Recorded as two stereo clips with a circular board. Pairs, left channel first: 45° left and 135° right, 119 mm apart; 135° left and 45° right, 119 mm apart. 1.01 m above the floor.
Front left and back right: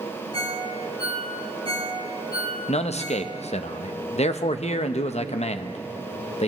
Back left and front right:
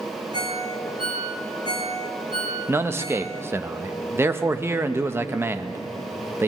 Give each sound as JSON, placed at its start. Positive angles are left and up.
{"t": 0.3, "sound": "a ringtone", "azimuth_deg": -10, "distance_m": 2.0}
{"t": 2.7, "sound": "a man speaking", "azimuth_deg": 25, "distance_m": 0.7}